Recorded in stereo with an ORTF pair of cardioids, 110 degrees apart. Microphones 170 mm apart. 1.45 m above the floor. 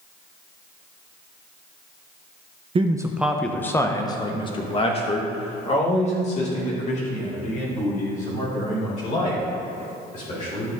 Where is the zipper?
I don't hear a zipper.